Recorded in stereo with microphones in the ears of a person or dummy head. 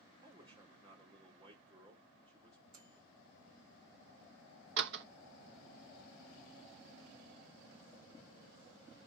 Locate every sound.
0.2 s a man speaking: 35° right (ahead or behind), 3.5 m
2.7 s a microwave: 40° right (ahead or behind), 4.5 m
4.8 s a door slam: 60° right (ahead or behind), 0.9 m